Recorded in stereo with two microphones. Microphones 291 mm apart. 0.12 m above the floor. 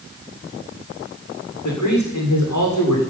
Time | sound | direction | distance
1.6 | a man speaking | 75° left (ahead or behind) | 8 m